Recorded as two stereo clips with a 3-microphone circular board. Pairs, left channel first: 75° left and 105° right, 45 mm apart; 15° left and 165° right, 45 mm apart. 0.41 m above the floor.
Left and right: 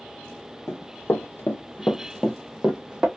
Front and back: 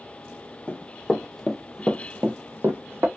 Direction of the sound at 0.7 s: 75° left.